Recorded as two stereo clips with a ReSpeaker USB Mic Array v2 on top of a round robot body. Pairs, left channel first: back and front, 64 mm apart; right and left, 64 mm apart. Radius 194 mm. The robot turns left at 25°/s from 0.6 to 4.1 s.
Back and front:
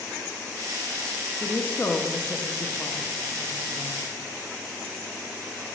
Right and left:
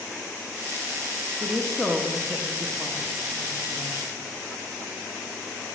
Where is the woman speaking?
160° right, 0.9 m; by 4.0 s 135° left, 0.9 m.